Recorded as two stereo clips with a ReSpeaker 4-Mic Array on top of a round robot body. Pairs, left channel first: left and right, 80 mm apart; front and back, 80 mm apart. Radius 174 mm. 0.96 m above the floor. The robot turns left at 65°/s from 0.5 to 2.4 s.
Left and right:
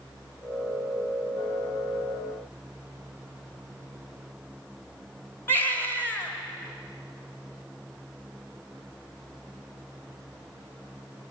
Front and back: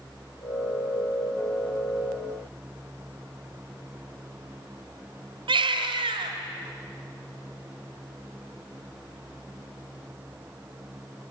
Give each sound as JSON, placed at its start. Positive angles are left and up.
{"t": 5.5, "sound": "a baby crying", "azimuth_deg": 160, "distance_m": 1.6}